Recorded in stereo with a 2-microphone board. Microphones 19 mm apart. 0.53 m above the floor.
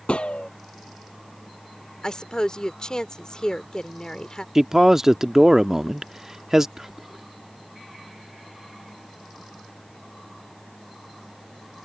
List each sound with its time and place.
0.1 s a gunshot: 80° left
2.0 s a woman speaking: 45° left (ahead or behind)
4.5 s a man speaking: 20° right (ahead or behind)
6.8 s whispering: 25° right (ahead or behind)